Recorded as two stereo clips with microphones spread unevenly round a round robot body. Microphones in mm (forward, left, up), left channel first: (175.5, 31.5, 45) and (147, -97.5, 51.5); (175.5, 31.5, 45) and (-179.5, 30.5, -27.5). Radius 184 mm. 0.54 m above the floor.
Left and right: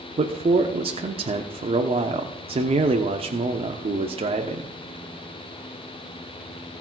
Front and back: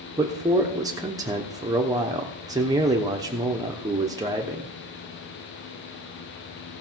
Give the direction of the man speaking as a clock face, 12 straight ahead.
4 o'clock.